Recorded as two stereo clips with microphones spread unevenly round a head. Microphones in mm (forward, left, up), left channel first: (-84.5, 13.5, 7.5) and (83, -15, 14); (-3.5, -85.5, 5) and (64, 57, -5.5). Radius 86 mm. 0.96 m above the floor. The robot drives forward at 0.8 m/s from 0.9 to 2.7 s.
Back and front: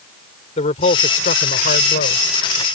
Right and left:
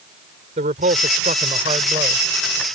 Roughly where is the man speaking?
Behind left.